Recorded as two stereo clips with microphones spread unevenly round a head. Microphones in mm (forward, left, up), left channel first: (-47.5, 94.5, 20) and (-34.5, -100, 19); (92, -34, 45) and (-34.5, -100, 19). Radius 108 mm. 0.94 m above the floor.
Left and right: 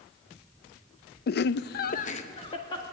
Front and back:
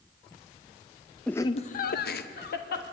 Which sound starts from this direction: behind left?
Laughter, at 1.3 s.